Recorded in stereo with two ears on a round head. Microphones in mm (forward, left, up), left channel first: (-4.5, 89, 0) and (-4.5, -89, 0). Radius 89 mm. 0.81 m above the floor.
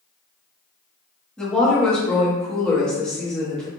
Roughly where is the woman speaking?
Centre.